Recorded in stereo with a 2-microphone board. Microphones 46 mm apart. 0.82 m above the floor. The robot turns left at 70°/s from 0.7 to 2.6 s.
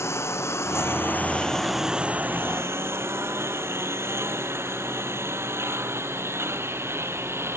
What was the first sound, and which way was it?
A lawn mower, 70° left (ahead or behind).